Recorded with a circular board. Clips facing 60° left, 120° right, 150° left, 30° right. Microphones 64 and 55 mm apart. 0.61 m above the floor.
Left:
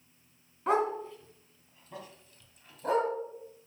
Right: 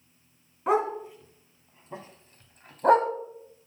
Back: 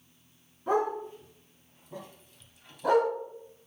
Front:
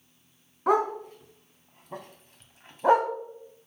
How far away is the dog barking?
About 2.0 m.